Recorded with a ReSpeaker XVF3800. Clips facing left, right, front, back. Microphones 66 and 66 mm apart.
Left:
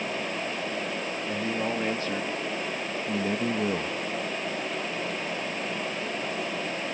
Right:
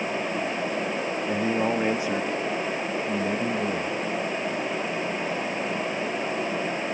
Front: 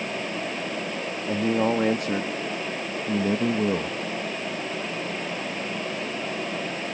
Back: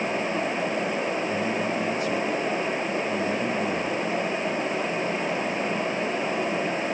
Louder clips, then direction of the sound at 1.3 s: Right 5 dB, front 3 dB; 25° right.